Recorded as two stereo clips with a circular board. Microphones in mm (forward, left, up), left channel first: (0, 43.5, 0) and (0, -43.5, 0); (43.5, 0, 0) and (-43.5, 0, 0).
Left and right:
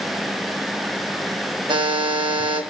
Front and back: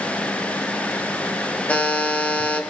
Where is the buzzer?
75° right, 2.5 m.